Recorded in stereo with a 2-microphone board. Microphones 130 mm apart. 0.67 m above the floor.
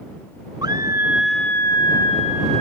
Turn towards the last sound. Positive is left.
turn(degrees=50)  # may be behind; listen again after turning